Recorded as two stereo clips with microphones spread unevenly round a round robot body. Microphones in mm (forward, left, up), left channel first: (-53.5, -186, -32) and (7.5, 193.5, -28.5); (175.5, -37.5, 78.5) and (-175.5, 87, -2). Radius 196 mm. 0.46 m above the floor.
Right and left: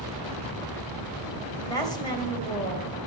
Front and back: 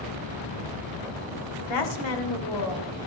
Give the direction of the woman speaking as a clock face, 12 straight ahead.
1 o'clock.